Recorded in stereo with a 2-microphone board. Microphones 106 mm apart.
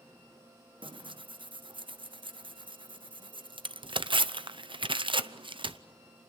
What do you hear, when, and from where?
0.8 s tearing paper: 55° right (ahead or behind), 0.6 m